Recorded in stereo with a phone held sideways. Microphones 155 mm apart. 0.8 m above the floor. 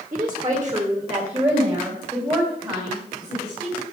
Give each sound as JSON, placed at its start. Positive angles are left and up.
{"t": 0.1, "sound": "a woman speaking", "side_deg": -35, "distance_m": 1.6}